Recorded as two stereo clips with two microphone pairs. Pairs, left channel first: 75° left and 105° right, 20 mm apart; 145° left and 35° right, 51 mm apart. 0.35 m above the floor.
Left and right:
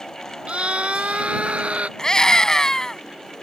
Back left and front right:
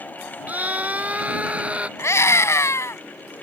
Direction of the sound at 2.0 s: 130° left.